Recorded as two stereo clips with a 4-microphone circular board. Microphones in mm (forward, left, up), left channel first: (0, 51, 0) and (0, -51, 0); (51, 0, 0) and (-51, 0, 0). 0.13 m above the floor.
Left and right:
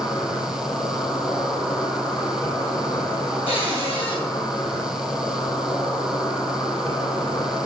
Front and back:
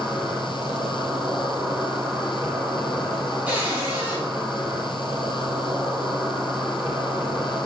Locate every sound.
0.0 s an insect: 120° left, 3 m
3.5 s a cupboard door: 110° left, 3 m